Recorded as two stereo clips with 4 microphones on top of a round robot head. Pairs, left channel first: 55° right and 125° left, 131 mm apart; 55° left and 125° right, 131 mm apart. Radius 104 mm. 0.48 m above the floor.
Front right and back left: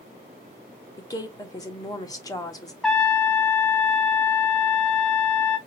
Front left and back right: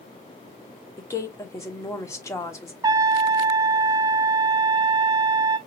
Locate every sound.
1.0 s a woman speaking: 5° right, 1.2 m
2.8 s a trumpet: 140° right, 1.1 m